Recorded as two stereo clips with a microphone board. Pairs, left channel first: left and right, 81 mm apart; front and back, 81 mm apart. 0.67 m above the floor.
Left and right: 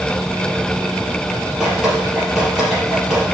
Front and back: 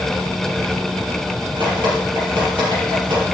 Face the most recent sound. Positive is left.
turn(degrees=-175)